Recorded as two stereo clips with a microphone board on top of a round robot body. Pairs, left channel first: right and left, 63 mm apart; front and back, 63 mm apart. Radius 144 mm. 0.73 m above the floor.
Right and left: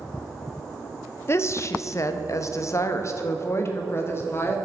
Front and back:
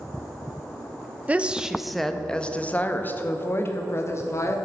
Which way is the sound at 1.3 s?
120° right.